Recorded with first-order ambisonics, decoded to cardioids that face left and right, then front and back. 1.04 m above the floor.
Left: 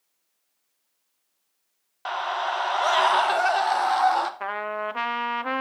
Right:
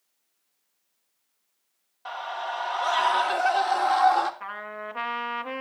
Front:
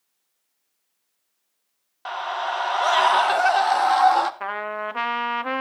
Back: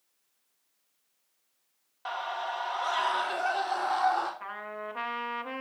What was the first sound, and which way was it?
A scream, 65° left.